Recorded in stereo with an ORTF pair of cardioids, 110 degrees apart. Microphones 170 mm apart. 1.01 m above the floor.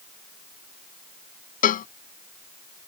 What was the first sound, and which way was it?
A cowbell, 55° left.